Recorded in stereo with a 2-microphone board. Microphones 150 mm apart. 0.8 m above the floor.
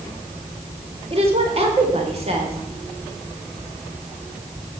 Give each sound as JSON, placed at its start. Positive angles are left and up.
{"t": 1.1, "sound": "a woman speaking", "side_deg": -40, "distance_m": 3.0}